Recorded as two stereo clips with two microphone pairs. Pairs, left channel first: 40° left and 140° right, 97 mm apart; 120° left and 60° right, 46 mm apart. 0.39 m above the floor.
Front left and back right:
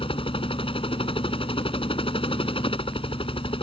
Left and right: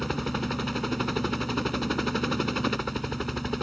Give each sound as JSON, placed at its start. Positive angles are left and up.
{"t": 0.0, "sound": "a helicopter", "azimuth_deg": 30}